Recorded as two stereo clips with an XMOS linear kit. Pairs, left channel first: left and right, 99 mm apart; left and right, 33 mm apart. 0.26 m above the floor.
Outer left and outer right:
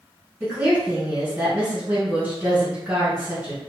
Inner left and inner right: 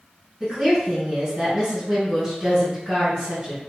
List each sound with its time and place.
0.4 s a woman speaking: 20° right (ahead or behind), 1.7 m